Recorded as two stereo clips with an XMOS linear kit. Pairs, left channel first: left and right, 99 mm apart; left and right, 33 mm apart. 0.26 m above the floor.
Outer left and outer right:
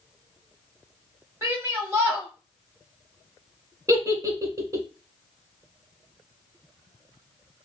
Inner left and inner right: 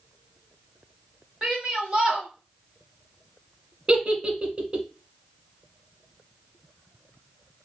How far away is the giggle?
About 0.6 m.